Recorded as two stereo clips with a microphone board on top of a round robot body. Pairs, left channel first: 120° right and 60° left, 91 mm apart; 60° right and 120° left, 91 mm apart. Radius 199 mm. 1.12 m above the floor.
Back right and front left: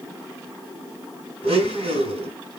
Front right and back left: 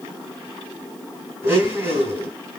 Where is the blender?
55° left, 3.5 m.